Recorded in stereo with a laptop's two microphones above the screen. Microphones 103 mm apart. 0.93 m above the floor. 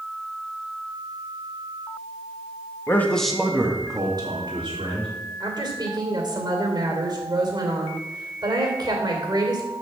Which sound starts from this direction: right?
A woman speaking, at 5.4 s.